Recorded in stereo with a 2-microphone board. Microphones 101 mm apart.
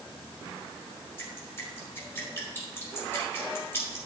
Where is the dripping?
25° left (ahead or behind), 4.5 m.